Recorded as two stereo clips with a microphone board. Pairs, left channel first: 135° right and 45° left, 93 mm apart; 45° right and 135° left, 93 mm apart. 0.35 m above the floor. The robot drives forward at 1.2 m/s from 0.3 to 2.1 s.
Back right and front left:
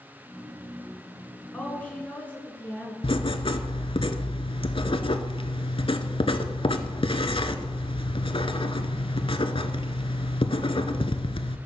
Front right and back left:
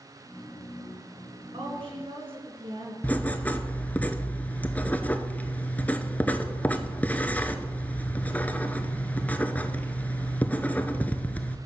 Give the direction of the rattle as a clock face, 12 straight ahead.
I don't hear a rattle.